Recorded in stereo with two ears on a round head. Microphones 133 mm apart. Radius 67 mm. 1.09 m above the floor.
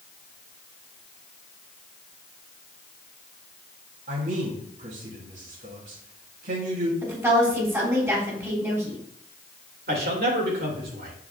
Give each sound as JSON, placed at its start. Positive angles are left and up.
{"t": 4.1, "sound": "a man speaking", "side_deg": -60, "distance_m": 2.5}
{"t": 7.0, "sound": "a woman speaking", "side_deg": -20, "distance_m": 4.0}
{"t": 9.9, "sound": "a man speaking", "side_deg": -65, "distance_m": 2.5}